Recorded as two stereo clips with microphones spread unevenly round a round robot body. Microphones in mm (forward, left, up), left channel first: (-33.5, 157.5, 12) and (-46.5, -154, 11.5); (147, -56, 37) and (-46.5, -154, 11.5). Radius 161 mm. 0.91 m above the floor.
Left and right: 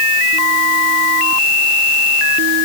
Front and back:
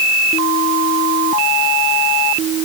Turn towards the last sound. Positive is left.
No sound to turn to.